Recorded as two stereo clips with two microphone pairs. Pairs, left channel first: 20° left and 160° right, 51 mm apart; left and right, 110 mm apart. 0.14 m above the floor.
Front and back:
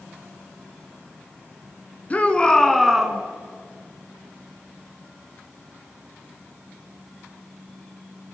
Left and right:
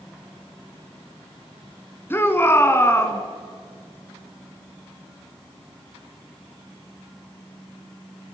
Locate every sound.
2.1 s a shout: 40° left, 1.6 m; by 3.2 s 135° left, 1.6 m